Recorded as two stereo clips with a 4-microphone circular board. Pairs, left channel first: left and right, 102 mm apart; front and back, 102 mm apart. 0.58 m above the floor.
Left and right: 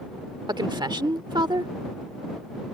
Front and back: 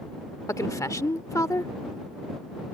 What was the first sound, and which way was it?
A woman speaking, 55° right.